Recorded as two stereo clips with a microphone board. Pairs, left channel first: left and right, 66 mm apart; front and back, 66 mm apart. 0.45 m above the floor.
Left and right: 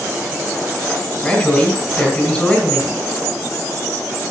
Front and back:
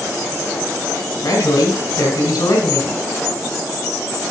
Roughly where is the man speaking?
Ahead.